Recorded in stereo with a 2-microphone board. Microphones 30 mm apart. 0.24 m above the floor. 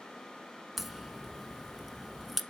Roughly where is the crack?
Centre.